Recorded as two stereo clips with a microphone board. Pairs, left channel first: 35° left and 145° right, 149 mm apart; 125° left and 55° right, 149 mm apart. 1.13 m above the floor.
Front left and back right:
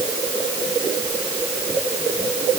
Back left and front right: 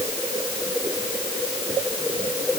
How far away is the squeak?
No squeak in this recording.